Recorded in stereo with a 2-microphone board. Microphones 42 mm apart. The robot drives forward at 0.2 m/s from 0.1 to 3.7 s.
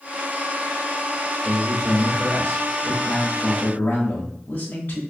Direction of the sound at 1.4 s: 40° left (ahead or behind).